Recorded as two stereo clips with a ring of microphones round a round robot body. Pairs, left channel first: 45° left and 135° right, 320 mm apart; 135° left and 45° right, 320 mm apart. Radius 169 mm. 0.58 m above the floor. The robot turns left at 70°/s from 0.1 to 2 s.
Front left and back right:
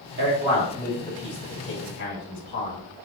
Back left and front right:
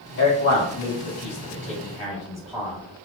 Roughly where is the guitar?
No guitar in this recording.